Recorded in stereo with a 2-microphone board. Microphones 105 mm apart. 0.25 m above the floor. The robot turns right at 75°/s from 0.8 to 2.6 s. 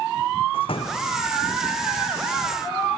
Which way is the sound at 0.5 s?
60° left (ahead or behind).